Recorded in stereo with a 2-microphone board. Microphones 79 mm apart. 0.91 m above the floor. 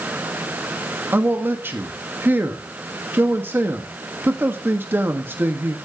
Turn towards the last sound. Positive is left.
turn(degrees=-25)  # may be behind; listen again after turning